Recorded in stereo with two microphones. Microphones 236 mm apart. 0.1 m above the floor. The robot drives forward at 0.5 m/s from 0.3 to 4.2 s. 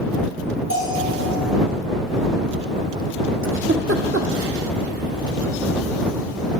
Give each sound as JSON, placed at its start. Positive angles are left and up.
{"t": 0.7, "sound": "a bell", "side_deg": -60, "distance_m": 3.5}
{"t": 3.4, "sound": "a giggle", "side_deg": -60, "distance_m": 1.1}